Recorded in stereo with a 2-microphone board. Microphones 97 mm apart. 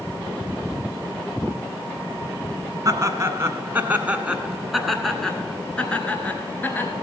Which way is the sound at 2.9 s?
35° right (ahead or behind).